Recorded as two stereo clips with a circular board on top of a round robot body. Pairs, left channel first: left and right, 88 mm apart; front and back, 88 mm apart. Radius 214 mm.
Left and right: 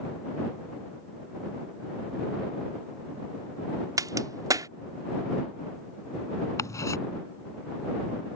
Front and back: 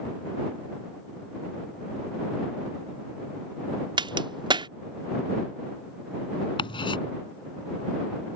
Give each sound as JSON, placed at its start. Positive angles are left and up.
{"t": 4.0, "sound": "a crack", "azimuth_deg": -145}
{"t": 6.6, "sound": "ticking", "azimuth_deg": 35}